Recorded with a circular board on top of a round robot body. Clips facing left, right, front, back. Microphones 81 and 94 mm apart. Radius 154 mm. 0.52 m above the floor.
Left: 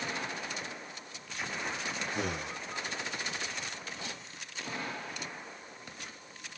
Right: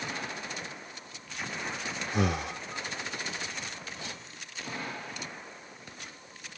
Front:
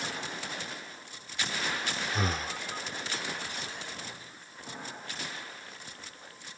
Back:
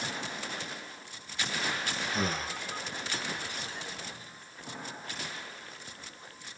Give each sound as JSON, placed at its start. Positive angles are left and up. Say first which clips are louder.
{"t": 2.1, "sound": "breathing", "louder": "right 9 dB, even", "azimuth_deg": -85, "distance_m": 0.9}